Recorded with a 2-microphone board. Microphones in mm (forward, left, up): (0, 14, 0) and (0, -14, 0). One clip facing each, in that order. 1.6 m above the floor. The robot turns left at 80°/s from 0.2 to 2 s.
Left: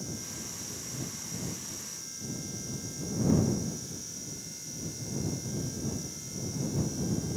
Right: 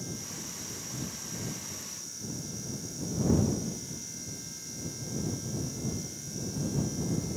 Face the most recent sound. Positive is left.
No sound to turn to.